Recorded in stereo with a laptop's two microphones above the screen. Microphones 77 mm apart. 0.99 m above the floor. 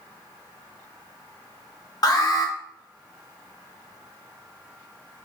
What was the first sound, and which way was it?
An alarm, 55° left (ahead or behind).